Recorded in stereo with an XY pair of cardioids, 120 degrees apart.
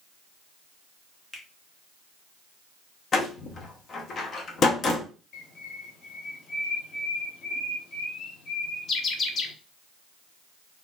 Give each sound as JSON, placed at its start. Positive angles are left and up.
{"t": 1.3, "sound": "a finger snap", "azimuth_deg": 15, "distance_m": 1.1}
{"t": 3.1, "sound": "a door slam", "azimuth_deg": 45, "distance_m": 0.9}
{"t": 5.3, "sound": "a bird", "azimuth_deg": 45, "distance_m": 0.9}